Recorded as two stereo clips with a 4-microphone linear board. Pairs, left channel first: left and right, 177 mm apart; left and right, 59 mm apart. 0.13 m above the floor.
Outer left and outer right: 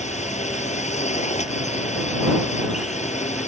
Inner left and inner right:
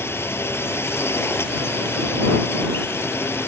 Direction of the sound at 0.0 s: 40° left (ahead or behind).